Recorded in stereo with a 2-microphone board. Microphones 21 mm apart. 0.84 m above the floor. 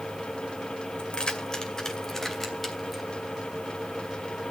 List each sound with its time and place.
1.0 s keys jangling: 50° left (ahead or behind), 2.5 m; by 3.0 s centre (ahead or behind), 3.5 m